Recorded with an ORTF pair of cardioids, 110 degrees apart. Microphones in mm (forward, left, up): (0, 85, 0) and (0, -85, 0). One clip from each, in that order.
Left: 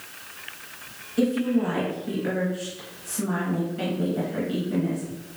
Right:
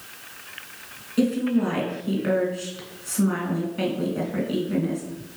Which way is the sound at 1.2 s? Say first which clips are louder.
Even; 35° right.